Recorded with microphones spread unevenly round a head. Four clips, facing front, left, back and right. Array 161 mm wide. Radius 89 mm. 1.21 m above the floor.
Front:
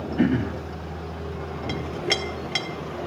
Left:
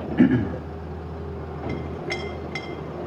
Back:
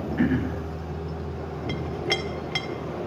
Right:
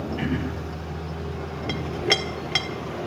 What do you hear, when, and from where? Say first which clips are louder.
0.2 s throat clearing: left 13 dB, front 2 dB; 70° left, 1.3 m
1.7 s a clink: right 5 dB, front 1 dB; 75° right, 1.6 m